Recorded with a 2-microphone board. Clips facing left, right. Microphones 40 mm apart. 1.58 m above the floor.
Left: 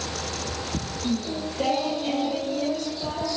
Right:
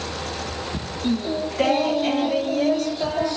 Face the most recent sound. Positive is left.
turn(degrees=-60)  # may be behind; listen again after turning